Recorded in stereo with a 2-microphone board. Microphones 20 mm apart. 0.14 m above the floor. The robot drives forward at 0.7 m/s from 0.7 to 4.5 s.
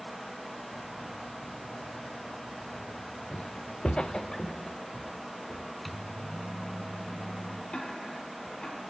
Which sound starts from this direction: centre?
A microwave, at 5.8 s.